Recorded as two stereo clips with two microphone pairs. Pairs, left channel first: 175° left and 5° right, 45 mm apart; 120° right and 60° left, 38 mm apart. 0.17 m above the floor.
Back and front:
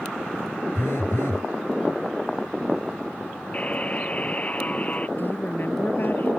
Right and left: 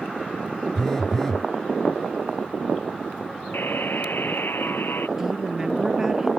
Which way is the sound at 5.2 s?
135° left.